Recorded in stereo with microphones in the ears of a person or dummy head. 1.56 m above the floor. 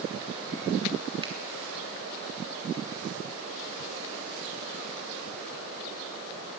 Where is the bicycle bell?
No bicycle bell in this recording.